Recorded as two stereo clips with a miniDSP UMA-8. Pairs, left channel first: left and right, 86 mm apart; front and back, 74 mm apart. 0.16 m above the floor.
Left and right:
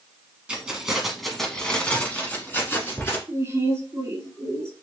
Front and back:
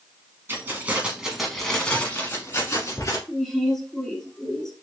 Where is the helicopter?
I don't hear a helicopter.